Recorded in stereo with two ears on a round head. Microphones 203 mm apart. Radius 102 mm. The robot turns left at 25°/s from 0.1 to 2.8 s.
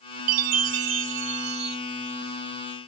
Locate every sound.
0.3 s a chime: 100° right; by 1.8 s 135° right